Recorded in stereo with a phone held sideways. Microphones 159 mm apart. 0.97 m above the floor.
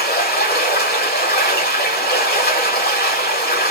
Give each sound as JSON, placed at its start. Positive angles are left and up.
{"t": 0.0, "sound": "running water", "side_deg": 75, "distance_m": 1.8}